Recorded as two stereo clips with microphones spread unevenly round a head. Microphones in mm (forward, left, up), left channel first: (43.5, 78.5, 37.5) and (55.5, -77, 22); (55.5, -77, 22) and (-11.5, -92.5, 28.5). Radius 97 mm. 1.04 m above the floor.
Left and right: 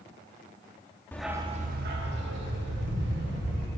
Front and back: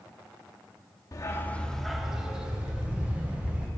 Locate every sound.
1.1 s a dog barking: 30° left, 0.6 m; by 3.7 s 95° right, 2.5 m